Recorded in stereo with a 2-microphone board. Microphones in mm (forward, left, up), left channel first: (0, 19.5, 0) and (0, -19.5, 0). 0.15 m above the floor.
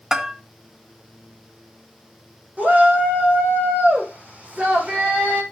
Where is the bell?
15° right (ahead or behind), 1.7 m.